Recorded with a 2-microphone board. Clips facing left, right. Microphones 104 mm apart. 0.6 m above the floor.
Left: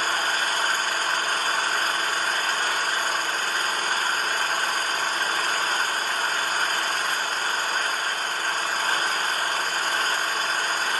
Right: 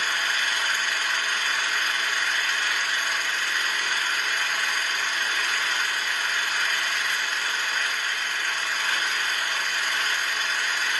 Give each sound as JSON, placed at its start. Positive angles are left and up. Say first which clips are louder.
{"t": 0.0, "sound": "an engine running", "louder": "left 3 dB", "side_deg": 40, "distance_m": 0.7}